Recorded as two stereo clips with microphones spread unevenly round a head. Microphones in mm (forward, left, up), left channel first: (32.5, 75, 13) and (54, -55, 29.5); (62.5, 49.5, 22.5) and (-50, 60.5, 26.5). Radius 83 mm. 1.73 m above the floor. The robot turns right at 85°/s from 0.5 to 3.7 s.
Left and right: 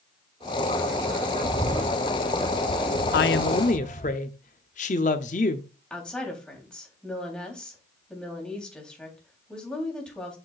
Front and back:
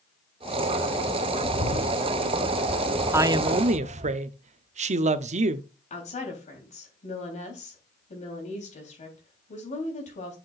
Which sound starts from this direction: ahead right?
A bird, at 1.4 s.